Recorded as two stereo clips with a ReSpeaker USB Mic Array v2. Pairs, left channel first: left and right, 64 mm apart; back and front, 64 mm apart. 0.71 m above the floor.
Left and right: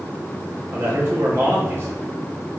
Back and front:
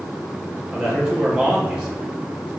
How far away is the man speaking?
About 0.9 m.